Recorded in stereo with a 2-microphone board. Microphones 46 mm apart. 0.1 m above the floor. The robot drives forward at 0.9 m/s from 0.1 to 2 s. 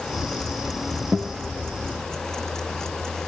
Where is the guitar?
25° right (ahead or behind), 3.5 m.